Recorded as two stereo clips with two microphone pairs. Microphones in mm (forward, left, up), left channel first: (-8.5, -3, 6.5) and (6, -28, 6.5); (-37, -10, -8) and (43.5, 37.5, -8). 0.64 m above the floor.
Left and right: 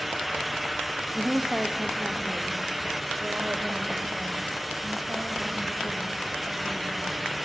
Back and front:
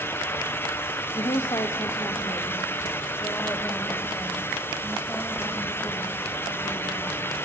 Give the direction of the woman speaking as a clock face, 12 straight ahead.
4 o'clock.